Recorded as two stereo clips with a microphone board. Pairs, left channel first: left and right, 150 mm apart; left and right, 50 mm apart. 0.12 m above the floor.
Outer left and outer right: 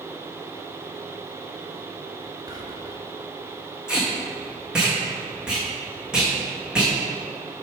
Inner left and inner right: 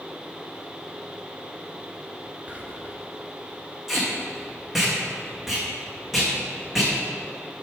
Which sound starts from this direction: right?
Whispering, at 2.5 s.